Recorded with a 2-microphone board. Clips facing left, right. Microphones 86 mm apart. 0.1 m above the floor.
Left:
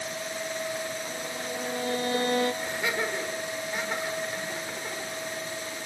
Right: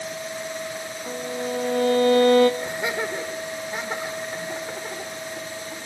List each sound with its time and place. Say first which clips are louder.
1.1 s a violin: right 6 dB; 70° right (ahead or behind), 1.5 m
2.6 s laughter: right 3 dB; 25° right (ahead or behind), 6 m